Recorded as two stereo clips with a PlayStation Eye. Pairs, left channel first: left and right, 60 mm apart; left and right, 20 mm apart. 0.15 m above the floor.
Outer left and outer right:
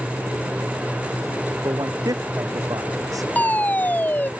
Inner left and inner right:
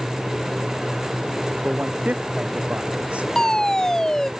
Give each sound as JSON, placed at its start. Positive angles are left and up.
{"t": 1.6, "sound": "a man speaking", "side_deg": -80}
{"t": 3.4, "sound": "a fire alarm", "side_deg": 30}